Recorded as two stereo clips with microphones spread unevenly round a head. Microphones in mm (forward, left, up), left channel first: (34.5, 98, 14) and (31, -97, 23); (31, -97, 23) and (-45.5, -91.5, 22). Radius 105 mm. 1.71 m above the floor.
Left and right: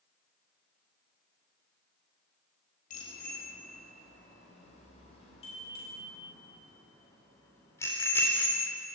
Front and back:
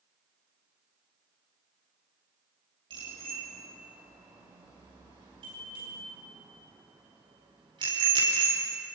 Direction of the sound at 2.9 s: 145° left.